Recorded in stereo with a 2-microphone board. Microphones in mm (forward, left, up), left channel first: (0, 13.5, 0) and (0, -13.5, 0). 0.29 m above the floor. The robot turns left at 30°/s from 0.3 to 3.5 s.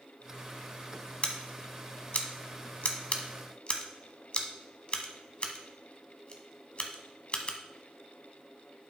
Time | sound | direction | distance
1.2 | scissors | 50° left (ahead or behind) | 1.0 m